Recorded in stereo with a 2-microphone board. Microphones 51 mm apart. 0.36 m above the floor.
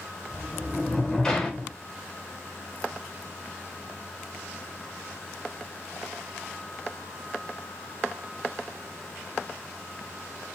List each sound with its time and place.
0.3 s a sliding door: 15° left (ahead or behind), 0.8 m